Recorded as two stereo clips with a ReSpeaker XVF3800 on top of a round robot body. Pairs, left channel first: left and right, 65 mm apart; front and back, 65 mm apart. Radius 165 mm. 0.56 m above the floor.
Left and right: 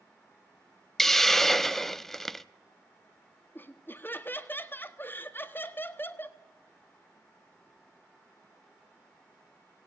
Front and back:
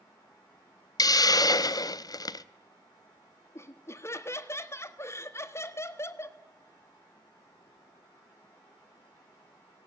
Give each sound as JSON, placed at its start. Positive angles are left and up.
{"t": 1.0, "sound": "a hiss", "azimuth_deg": 5, "distance_m": 0.8}
{"t": 3.5, "sound": "laughter", "azimuth_deg": 40, "distance_m": 1.7}